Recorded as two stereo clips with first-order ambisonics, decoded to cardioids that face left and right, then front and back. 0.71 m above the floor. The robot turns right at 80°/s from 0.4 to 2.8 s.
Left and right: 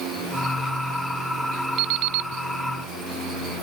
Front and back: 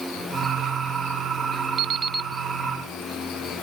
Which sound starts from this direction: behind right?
An alarm clock, at 1.8 s.